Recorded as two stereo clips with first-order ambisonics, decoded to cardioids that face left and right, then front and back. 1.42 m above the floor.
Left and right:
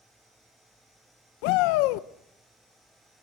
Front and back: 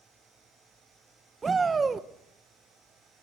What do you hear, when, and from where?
1.4 s a shout: 105° left, 1.1 m